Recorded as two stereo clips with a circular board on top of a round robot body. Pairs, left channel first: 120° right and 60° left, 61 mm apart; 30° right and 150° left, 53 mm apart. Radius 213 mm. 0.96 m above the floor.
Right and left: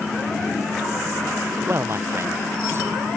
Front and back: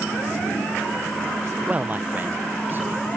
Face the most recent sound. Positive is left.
turn(degrees=105)